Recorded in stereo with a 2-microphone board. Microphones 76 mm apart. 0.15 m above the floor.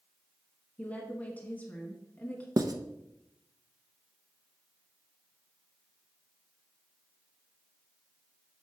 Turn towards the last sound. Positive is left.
turn(degrees=-55)  # may be behind; listen again after turning